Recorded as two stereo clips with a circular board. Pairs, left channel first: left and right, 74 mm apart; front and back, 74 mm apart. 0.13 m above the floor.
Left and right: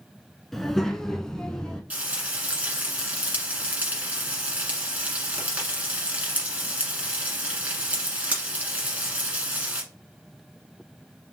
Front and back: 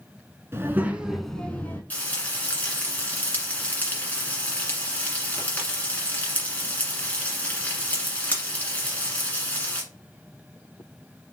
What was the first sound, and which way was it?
A child speaking, 175° left.